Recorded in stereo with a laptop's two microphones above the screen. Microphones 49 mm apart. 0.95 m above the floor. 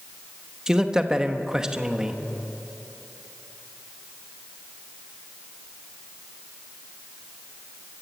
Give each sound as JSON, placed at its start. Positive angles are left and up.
{"t": 0.7, "sound": "a man speaking", "side_deg": -10, "distance_m": 1.0}